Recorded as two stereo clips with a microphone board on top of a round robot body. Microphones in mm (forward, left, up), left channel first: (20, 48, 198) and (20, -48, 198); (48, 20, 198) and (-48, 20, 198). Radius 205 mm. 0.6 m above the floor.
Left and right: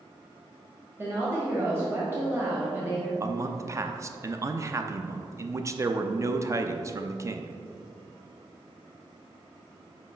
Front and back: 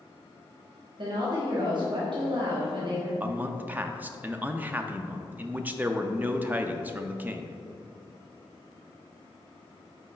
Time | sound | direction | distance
1.0 | a woman speaking | 150° right | 1.5 m
3.2 | a man speaking | 120° right | 0.6 m